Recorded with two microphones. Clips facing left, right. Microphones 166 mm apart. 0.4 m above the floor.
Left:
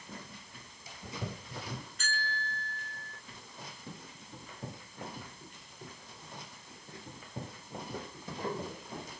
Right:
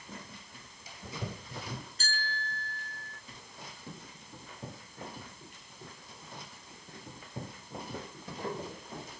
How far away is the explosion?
I don't hear an explosion.